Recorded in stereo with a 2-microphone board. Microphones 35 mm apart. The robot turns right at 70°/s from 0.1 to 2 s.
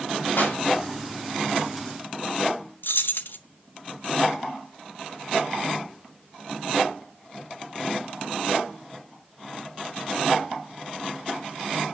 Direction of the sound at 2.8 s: 75° left (ahead or behind).